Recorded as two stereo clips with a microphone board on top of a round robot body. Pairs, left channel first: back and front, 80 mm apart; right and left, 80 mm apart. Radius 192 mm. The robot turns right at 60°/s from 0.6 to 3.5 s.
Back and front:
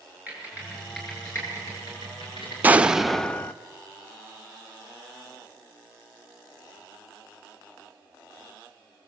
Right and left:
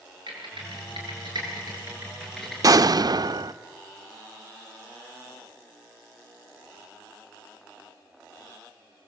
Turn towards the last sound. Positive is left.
turn(degrees=115)